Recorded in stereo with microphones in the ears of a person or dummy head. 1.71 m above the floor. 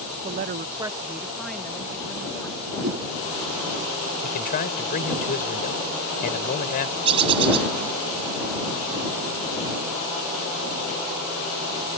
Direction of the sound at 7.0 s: 25° right (ahead or behind).